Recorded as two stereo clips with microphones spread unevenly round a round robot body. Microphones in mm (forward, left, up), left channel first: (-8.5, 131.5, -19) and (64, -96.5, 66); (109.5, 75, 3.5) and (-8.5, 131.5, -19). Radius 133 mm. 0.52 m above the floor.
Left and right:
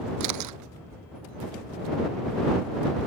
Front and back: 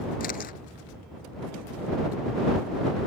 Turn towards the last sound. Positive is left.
turn(degrees=-65)